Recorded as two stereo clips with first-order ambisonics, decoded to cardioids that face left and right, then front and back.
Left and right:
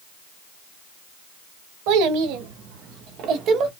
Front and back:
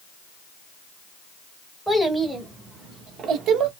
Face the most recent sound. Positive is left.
turn(degrees=-135)